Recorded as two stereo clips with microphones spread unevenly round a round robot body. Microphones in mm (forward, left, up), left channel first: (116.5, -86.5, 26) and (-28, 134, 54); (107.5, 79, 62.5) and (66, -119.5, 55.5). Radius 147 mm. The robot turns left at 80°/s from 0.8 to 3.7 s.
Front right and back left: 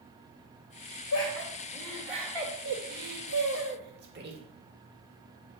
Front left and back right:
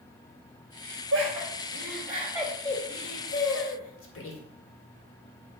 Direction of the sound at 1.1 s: 80° right.